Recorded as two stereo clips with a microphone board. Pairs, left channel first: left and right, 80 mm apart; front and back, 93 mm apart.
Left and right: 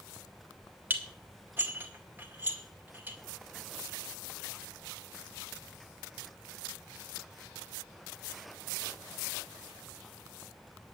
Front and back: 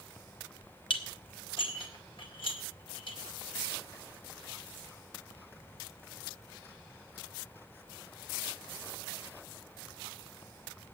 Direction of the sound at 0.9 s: 25° right.